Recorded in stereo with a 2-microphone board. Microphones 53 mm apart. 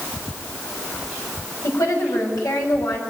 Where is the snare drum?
I don't hear a snare drum.